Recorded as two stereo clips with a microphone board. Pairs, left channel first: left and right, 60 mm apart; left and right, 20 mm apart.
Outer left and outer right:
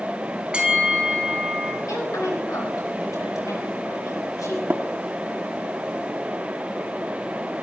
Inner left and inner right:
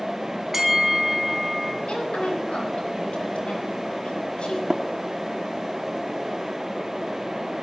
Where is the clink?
I don't hear a clink.